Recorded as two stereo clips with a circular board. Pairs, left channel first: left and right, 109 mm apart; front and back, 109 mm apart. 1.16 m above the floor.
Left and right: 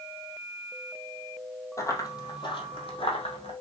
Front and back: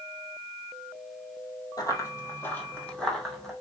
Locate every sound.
1.8 s running footsteps: 40° left, 1.6 m; by 3.5 s 90° left, 2.5 m